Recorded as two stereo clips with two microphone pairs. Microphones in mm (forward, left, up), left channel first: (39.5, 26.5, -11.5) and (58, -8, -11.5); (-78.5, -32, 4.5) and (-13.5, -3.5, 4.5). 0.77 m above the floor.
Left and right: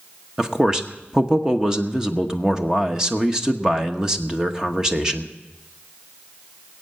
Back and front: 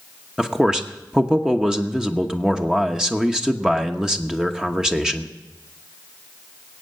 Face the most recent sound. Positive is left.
turn(degrees=-45)